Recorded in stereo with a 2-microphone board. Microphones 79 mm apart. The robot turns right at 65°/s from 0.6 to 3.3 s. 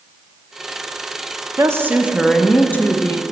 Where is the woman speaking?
45° right, 0.6 m; by 3.2 s 60° left, 0.6 m.